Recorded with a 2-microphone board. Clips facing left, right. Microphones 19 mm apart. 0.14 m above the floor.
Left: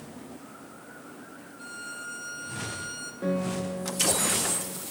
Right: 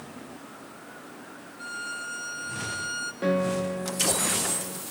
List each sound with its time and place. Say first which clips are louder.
1.6 s a violin: right 5 dB; 25° right (ahead or behind), 1.3 m
3.2 s a piano: right 4 dB; 40° right (ahead or behind), 0.9 m